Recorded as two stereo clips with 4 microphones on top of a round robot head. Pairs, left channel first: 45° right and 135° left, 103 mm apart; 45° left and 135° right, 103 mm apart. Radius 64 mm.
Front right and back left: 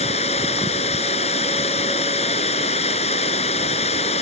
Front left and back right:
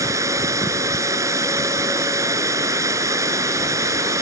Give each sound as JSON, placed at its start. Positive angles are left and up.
{"t": 0.0, "sound": "running water", "azimuth_deg": -70}